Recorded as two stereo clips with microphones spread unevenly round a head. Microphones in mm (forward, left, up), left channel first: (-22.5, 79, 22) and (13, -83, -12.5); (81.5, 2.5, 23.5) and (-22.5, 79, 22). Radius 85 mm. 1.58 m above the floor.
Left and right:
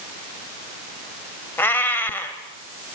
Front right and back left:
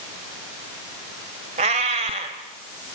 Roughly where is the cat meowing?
Behind.